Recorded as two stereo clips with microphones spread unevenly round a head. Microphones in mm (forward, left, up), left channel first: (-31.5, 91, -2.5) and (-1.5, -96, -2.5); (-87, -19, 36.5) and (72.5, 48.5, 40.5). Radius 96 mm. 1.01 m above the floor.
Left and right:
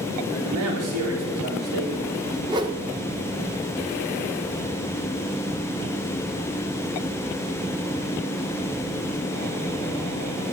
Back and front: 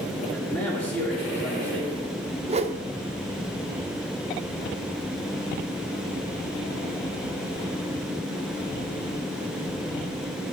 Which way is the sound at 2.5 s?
20° right.